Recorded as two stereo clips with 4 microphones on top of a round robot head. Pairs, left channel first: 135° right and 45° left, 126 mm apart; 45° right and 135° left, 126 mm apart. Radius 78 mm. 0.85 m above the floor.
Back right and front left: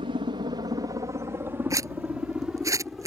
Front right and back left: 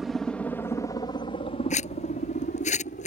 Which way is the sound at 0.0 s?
45° left.